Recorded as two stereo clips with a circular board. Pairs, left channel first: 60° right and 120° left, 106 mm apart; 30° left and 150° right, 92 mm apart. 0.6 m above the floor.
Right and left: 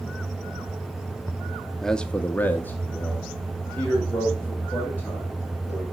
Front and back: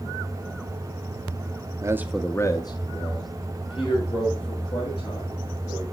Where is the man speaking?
145° right, 0.6 m; by 5.8 s 15° left, 4.5 m.